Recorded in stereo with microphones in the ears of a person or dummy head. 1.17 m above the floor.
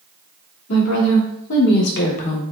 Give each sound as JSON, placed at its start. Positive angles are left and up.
{"t": 0.7, "sound": "a woman speaking", "side_deg": 80, "distance_m": 1.9}